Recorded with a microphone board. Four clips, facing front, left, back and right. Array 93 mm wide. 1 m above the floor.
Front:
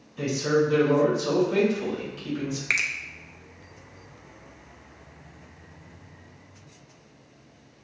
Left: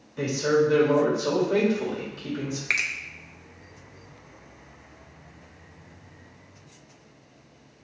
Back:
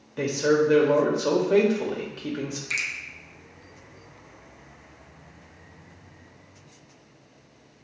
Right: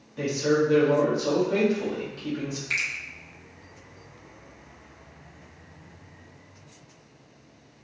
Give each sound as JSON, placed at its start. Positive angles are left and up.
{"t": 0.2, "sound": "a man speaking", "azimuth_deg": 175, "distance_m": 1.7}
{"t": 2.7, "sound": "a finger snap", "azimuth_deg": 40, "distance_m": 0.6}